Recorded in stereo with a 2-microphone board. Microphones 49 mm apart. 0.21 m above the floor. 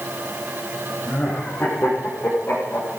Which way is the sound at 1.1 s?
35° left (ahead or behind).